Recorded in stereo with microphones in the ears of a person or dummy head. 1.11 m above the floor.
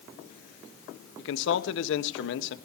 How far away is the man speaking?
About 1.5 m.